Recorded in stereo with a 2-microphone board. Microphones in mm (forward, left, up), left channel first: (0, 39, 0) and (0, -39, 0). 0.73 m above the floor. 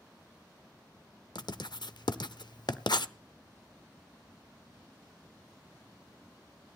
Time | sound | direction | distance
1.4 | writing | 70° left (ahead or behind) | 0.6 m